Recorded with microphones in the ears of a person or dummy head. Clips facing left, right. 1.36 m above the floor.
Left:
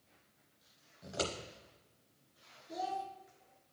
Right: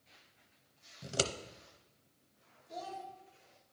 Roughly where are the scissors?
Right.